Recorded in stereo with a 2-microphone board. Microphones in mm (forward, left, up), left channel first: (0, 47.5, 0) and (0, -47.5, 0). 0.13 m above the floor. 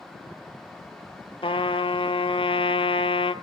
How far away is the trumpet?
About 0.6 m.